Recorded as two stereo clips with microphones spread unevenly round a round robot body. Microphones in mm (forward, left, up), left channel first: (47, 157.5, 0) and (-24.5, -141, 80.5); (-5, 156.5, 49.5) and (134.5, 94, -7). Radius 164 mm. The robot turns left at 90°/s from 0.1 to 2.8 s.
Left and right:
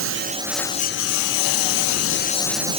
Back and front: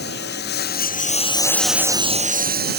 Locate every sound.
0.0 s a lawn mower: 150° right; by 2.8 s 35° right